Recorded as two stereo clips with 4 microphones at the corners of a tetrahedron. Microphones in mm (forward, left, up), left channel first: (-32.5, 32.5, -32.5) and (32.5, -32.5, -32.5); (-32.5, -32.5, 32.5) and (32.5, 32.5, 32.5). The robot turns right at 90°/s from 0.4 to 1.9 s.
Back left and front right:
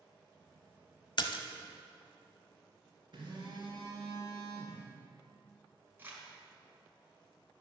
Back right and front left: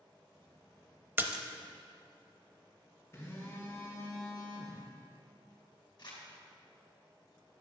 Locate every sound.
1.2 s a splash: 110° left, 0.7 m; by 1.4 s 135° left, 0.7 m
3.1 s a phone buzzing: 75° right, 2 m
6.0 s crumpling: 110° right, 2.5 m